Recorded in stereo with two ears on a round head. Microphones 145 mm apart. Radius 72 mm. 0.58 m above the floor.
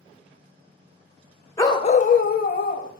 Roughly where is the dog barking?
Centre.